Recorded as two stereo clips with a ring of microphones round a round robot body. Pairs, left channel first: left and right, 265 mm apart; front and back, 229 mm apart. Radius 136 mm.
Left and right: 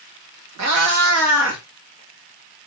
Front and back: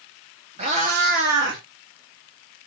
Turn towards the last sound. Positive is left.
turn(degrees=-130)